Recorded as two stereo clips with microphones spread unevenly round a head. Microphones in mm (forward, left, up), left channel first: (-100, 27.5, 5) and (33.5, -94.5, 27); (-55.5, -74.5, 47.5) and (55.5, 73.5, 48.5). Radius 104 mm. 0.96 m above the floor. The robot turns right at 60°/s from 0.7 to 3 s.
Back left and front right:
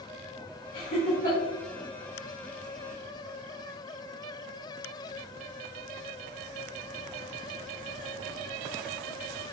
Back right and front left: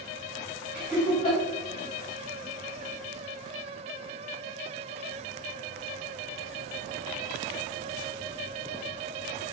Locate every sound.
0.7 s laughter: 135° left, 3 m; by 1.4 s 175° left, 3 m